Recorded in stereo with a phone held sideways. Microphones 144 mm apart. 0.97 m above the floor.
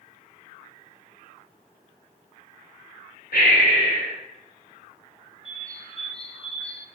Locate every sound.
3.3 s breathing: 75° left (ahead or behind), 2 m
5.5 s a bird: 40° left (ahead or behind), 0.7 m